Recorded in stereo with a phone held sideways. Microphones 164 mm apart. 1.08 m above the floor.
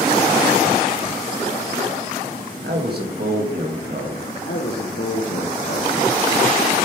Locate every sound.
2.6 s a man speaking: 75° right (ahead or behind), 1.3 m
4.5 s a man speaking: 75° left (ahead or behind), 0.8 m